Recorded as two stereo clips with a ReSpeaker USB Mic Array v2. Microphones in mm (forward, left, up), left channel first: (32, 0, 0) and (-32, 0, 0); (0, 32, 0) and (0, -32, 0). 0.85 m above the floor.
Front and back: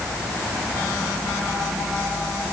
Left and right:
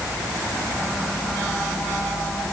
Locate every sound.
Only background noise.